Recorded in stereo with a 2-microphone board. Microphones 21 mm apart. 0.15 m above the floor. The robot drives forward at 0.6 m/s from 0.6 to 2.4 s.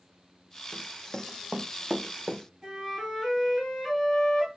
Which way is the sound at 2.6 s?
25° right (ahead or behind).